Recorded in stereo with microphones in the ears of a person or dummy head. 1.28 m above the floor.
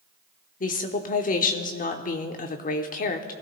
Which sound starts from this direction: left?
A woman speaking, at 0.6 s.